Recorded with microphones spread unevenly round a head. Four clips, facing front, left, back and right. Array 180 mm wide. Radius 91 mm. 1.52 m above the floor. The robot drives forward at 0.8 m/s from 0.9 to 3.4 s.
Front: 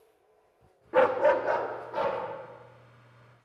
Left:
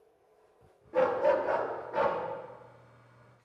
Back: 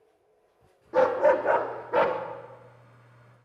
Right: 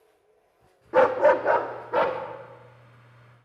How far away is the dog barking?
About 1.1 m.